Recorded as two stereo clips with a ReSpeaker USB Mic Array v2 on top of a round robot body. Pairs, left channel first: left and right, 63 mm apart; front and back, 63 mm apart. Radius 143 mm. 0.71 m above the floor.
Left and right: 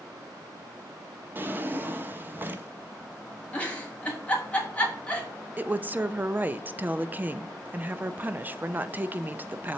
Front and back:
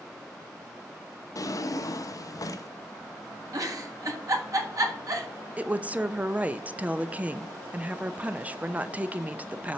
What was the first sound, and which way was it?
A drawer, 30° right.